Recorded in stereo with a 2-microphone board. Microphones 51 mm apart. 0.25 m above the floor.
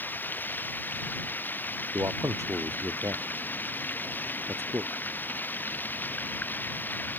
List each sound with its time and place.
0.0 s running water: 35° left (ahead or behind)
1.9 s a man speaking: 75° right (ahead or behind)